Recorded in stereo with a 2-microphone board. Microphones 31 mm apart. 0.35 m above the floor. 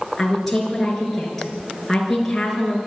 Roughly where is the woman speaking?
Centre.